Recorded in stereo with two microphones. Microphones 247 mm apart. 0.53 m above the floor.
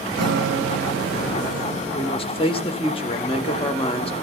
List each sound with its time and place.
0.2 s a guitar: 90° right, 0.7 m
1.9 s a man speaking: 20° left (ahead or behind), 0.8 m